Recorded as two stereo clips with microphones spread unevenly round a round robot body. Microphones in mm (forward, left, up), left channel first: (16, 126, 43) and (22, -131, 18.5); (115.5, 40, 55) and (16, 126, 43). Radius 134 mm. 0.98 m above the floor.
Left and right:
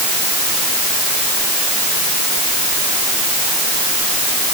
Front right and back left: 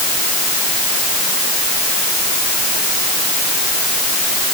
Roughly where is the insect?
No insect in this recording.